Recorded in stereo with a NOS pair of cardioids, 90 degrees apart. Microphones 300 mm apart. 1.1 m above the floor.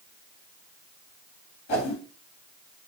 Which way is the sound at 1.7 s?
50° left.